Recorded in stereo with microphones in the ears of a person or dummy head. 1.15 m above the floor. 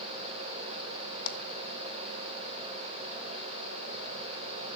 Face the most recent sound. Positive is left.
turn(degrees=55)  # may be behind; listen again after turning